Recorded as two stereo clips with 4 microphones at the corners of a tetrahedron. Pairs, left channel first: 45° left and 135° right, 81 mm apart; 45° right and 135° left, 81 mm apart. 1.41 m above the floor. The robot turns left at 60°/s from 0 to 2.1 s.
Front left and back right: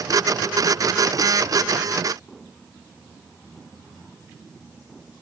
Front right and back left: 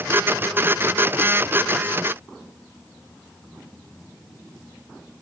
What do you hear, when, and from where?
Only background noise.